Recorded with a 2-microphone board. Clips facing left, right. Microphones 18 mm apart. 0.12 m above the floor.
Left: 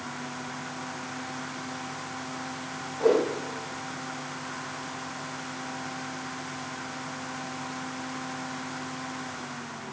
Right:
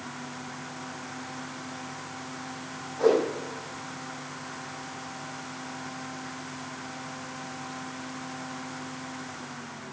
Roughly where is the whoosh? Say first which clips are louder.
Even; right.